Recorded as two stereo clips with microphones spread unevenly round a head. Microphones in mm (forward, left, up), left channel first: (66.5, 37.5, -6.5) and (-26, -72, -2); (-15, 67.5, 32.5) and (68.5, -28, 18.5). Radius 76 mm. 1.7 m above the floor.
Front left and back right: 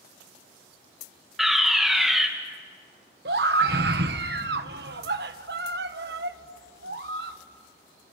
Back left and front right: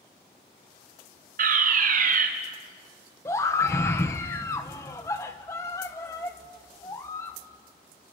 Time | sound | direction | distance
1.4 | a fire alarm | 40° right | 3 m
3.2 | a scream | 155° right | 1.5 m